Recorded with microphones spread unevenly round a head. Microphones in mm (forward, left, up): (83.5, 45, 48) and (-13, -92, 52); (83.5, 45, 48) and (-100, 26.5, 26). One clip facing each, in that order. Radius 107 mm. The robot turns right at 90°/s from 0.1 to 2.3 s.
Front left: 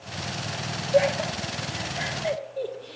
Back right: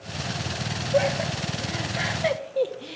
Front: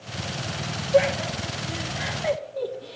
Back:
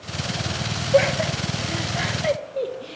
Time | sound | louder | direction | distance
0.9 | laughter | front left 2 dB, back 2 dB | 130° left | 1.2 m